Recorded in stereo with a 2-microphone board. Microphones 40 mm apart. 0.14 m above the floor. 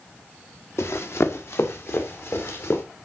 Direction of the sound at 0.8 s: 75° left (ahead or behind).